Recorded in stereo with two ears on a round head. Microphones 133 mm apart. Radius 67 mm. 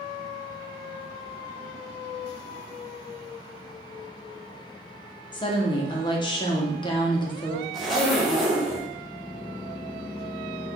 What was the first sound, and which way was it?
A woman speaking, 30° left (ahead or behind).